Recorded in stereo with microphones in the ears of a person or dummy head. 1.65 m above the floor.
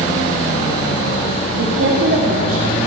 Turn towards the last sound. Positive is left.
turn(degrees=-40)  # may be behind; listen again after turning